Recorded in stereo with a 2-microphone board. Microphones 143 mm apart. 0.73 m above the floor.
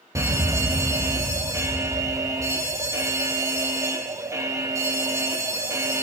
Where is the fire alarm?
20° right (ahead or behind), 1.4 m.